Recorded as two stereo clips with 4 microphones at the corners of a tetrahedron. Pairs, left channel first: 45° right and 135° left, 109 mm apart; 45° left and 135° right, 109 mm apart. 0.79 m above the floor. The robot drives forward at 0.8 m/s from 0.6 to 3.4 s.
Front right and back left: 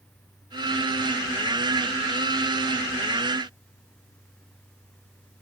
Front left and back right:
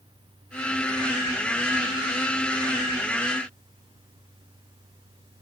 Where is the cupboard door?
I don't hear a cupboard door.